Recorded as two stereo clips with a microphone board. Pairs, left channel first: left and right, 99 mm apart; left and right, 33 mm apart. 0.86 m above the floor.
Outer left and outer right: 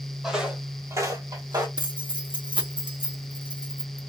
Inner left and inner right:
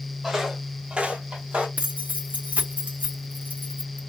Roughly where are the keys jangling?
Right.